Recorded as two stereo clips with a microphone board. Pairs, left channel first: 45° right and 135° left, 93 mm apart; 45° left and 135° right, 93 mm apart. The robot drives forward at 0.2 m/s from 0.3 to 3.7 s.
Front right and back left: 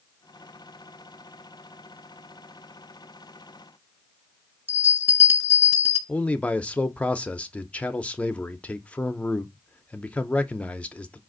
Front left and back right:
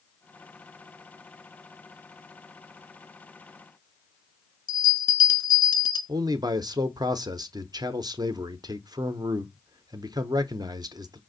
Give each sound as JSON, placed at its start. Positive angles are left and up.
{"t": 4.7, "sound": "a bell", "azimuth_deg": 75, "distance_m": 1.1}
{"t": 6.1, "sound": "a man speaking", "azimuth_deg": -115, "distance_m": 0.5}